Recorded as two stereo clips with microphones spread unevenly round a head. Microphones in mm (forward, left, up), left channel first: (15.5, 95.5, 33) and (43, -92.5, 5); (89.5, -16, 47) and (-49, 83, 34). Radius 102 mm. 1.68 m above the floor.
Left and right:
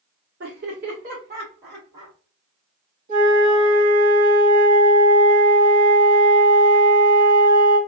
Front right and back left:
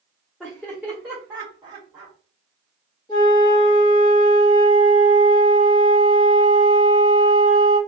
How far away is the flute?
About 1.2 m.